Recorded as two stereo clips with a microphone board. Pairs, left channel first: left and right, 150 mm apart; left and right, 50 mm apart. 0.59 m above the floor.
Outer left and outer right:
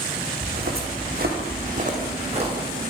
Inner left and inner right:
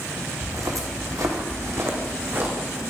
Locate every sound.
0.4 s footsteps: 75° right (ahead or behind), 2 m; by 2.5 s 35° right (ahead or behind), 2.5 m